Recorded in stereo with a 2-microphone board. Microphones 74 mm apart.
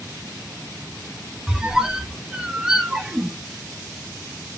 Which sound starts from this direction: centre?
A squeak, at 1.5 s.